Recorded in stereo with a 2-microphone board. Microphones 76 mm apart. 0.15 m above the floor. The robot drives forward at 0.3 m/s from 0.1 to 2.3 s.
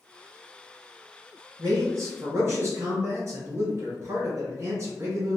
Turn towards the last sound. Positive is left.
turn(degrees=-40)  # may be behind; listen again after turning